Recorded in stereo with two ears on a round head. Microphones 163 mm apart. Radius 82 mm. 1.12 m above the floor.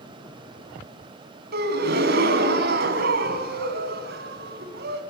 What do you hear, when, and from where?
1.5 s a gasp: 60° right (ahead or behind), 3 m